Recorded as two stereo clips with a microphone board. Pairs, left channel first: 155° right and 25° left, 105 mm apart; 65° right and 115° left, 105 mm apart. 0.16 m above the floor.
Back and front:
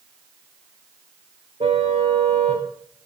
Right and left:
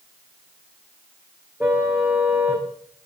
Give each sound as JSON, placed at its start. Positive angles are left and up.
{"t": 1.6, "sound": "a car horn", "azimuth_deg": 40, "distance_m": 5.5}